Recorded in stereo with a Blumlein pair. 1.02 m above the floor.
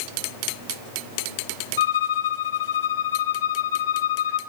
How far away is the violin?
About 1.5 m.